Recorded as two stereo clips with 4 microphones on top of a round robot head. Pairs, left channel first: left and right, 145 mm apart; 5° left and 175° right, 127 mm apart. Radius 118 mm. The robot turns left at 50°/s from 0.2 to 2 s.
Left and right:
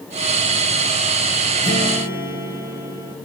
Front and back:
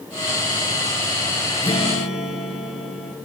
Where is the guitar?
50° left, 3 m; by 3.1 s 30° left, 3 m.